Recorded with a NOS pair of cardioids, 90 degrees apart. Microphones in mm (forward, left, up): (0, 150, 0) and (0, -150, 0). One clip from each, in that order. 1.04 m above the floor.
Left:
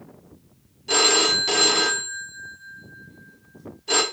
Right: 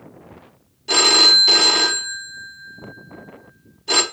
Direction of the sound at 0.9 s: 15° right.